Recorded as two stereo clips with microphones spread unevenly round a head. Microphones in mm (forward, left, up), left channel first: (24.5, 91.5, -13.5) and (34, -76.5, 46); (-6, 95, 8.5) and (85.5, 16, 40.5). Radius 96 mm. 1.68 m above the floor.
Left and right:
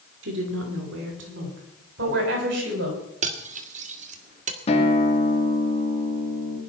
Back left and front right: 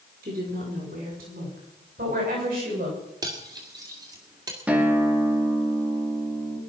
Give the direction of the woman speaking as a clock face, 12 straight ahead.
3 o'clock.